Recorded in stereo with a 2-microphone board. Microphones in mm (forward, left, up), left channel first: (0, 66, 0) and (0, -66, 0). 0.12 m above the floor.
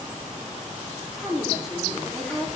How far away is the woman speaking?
About 5 m.